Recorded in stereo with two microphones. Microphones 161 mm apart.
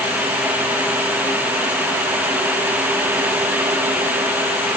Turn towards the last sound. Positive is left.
No sound to turn to.